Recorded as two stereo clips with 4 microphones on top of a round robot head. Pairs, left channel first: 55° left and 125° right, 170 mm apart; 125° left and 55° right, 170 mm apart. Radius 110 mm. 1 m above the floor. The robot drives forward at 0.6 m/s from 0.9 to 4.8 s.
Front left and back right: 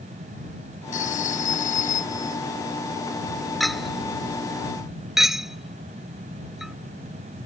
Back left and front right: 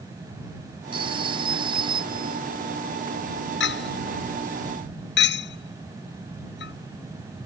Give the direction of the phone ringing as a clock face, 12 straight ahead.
12 o'clock.